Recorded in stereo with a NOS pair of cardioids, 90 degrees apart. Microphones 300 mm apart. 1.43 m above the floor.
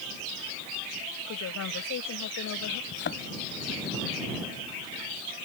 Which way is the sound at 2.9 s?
40° left.